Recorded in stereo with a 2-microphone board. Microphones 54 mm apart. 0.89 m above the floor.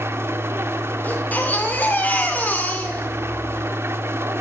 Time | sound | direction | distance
0.0 | an engine running | 50° right (ahead or behind) | 0.8 m
1.0 | a baby crying | 30° left (ahead or behind) | 1.8 m